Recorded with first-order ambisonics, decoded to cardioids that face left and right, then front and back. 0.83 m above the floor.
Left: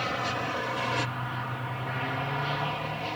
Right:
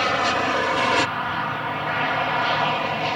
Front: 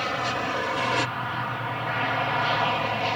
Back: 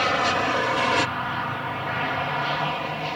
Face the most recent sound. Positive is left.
turn(degrees=-65)